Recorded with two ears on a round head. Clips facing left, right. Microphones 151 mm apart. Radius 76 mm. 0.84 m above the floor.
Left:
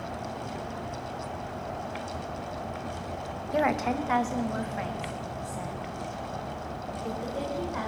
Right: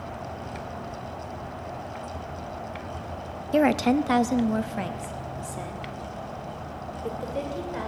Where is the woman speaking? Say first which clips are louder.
Right 6 dB; 30° right (ahead or behind), 0.5 m; by 7.9 s 35° right (ahead or behind), 3 m.